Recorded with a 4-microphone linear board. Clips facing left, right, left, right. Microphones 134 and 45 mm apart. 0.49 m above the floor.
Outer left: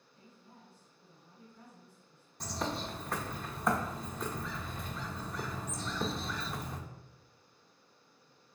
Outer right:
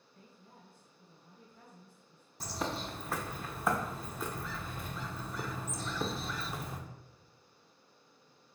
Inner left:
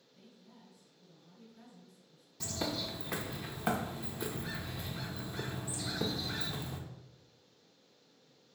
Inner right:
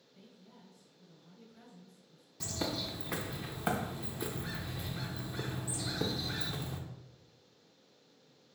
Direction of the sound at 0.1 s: 65° right (ahead or behind).